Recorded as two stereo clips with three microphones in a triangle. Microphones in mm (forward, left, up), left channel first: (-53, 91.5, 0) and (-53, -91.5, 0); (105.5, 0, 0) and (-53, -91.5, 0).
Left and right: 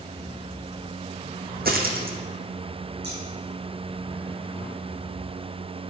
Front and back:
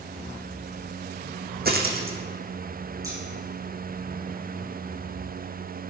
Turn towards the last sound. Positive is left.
turn(degrees=-80)